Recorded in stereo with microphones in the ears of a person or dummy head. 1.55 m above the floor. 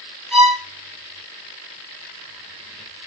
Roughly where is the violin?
Centre.